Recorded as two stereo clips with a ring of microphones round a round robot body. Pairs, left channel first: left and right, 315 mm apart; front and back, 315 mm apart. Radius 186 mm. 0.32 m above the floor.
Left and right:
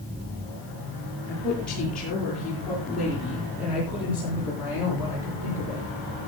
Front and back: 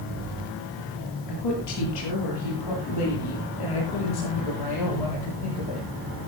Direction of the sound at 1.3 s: 5° left.